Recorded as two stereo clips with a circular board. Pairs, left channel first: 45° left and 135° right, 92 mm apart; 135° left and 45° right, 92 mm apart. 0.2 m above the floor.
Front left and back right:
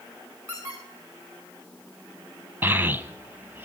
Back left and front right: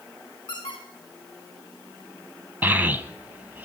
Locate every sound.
0.5 s a squeak: 175° left, 5 m
2.6 s a child speaking: 95° right, 0.7 m